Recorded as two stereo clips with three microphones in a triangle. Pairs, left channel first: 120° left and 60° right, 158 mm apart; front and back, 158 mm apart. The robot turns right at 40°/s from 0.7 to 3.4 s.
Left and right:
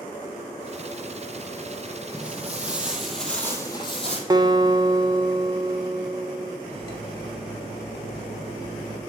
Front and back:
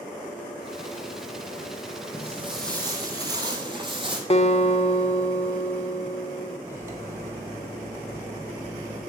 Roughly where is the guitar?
Ahead.